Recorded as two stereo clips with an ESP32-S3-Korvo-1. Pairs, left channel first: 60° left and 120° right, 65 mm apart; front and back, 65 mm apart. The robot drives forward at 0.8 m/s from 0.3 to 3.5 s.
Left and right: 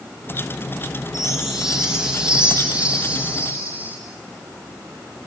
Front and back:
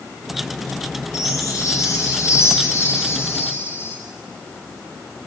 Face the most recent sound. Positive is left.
turn(degrees=-55)